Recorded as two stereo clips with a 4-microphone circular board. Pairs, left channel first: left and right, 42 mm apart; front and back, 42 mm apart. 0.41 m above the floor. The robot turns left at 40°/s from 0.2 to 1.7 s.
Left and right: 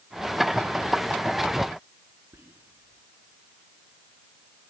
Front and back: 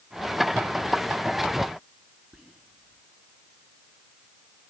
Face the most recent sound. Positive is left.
turn(degrees=-105)